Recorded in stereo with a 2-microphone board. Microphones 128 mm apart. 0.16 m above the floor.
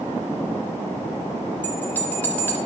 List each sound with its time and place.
1.6 s a bell: 15° left (ahead or behind), 2 m